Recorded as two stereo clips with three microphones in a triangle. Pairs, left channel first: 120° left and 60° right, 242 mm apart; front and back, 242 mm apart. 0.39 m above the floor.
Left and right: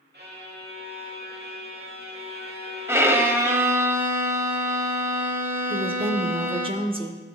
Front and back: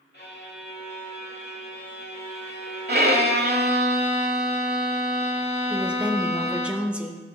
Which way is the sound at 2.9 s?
140° right.